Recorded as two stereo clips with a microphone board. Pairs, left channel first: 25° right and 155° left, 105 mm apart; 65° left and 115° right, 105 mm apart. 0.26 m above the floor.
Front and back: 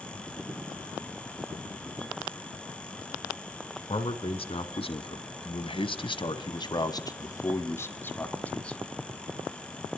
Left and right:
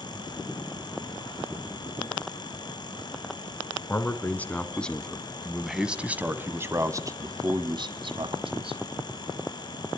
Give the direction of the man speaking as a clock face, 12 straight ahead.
12 o'clock.